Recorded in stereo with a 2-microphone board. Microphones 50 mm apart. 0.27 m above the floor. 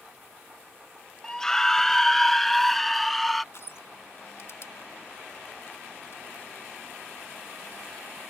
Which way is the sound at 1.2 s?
15° left (ahead or behind).